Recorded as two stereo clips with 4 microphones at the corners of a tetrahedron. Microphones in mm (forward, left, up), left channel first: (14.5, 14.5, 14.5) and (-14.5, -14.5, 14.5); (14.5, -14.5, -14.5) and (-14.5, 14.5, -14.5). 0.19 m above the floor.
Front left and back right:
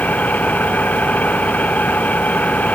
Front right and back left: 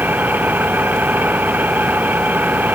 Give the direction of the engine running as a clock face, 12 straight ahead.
9 o'clock.